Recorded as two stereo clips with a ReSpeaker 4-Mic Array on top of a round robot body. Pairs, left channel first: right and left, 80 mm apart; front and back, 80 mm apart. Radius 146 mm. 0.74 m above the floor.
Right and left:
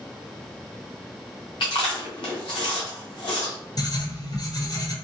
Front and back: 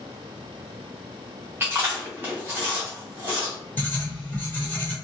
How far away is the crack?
I don't hear a crack.